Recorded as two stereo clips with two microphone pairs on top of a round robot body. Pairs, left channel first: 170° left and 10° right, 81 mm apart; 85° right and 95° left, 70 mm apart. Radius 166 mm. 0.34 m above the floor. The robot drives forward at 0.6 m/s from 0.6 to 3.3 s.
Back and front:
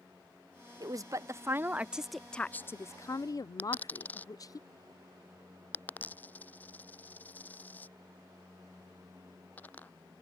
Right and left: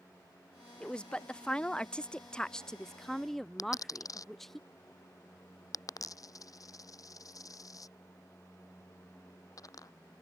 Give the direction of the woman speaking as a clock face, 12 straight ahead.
12 o'clock.